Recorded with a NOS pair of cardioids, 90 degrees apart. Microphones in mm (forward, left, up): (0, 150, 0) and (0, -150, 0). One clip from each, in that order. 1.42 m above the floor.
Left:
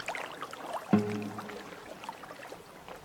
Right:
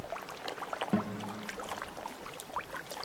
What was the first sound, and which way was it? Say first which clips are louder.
A guitar: left 9 dB; 30° left.